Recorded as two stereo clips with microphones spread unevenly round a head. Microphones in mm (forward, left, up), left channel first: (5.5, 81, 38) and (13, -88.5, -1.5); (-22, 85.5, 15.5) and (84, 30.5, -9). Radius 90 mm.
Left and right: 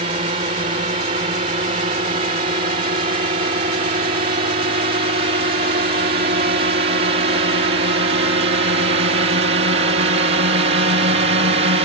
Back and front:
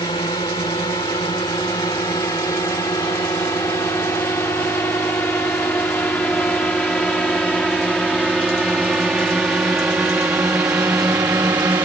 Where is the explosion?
I don't hear an explosion.